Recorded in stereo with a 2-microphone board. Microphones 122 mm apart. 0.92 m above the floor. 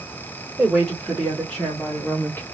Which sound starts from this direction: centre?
A woman speaking, at 0.6 s.